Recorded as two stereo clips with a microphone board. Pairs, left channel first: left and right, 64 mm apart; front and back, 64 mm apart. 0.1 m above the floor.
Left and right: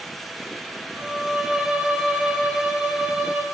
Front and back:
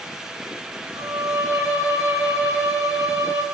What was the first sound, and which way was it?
A violin, 165° right.